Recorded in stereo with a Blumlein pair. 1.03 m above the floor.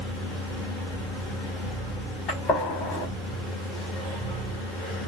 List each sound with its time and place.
0.0 s a machine running: 5° left, 1.6 m
2.3 s a gunshot: 25° left, 1.9 m